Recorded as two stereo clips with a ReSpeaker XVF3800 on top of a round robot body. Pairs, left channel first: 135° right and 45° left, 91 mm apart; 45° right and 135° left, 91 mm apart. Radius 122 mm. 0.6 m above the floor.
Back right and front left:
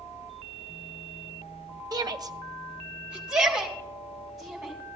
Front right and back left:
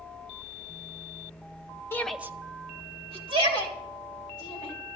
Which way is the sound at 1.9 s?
10° left.